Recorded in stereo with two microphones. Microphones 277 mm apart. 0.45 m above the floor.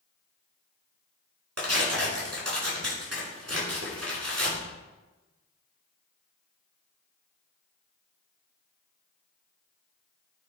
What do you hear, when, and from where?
1.6 s tearing paper: 60° right (ahead or behind), 4 m